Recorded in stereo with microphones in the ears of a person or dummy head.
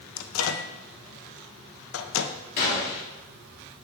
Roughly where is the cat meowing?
No cat meowing in this recording.